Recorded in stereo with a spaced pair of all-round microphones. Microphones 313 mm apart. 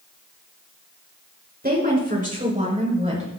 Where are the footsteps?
I don't hear footsteps.